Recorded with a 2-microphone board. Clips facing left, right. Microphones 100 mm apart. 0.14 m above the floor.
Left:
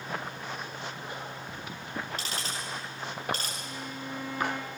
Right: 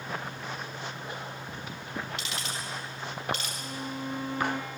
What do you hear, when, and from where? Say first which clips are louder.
2.2 s ticking: even; 40° left (ahead or behind), 4.5 m
3.6 s a violin: right 3 dB; 30° right (ahead or behind), 2.5 m